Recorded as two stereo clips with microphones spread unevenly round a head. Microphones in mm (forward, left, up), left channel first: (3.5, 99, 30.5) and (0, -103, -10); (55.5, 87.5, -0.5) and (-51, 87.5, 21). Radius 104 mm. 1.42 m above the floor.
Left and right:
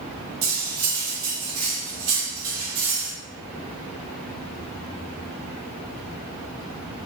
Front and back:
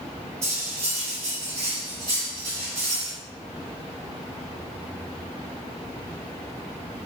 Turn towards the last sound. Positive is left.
turn(degrees=-105)